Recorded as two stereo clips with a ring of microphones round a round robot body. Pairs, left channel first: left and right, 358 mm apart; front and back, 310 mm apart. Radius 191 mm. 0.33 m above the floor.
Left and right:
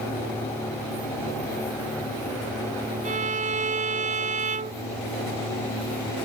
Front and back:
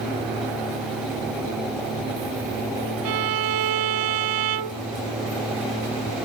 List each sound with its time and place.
3.0 s a violin: 160° right